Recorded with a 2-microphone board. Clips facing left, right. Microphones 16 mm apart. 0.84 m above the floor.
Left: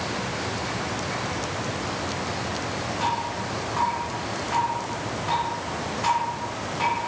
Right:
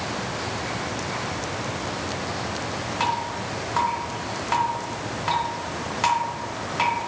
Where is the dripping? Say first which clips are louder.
Right 2 dB; 45° right (ahead or behind), 0.8 m.